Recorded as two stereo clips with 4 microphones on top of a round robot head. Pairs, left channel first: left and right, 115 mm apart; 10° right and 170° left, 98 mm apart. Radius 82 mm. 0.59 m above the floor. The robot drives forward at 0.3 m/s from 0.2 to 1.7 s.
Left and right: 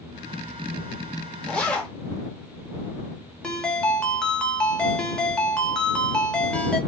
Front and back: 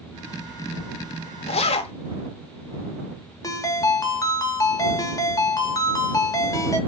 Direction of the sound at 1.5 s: 5° left.